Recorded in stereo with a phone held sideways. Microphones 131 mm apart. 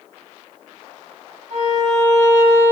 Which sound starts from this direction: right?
A violin, at 1.5 s.